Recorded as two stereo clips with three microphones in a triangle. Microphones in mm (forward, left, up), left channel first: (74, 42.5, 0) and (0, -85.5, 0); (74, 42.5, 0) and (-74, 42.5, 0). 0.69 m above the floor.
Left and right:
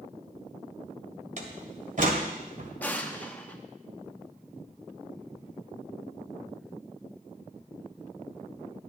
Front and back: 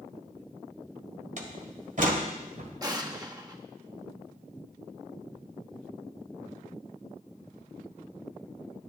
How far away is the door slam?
About 1.7 m.